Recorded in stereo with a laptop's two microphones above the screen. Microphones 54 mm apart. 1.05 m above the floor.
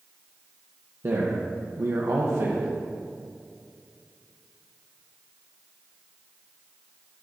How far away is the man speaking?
About 0.8 m.